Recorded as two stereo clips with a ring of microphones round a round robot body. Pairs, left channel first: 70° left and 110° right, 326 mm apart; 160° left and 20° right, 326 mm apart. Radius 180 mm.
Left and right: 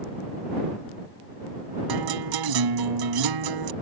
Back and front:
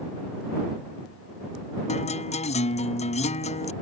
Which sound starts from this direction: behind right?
A guitar, at 1.9 s.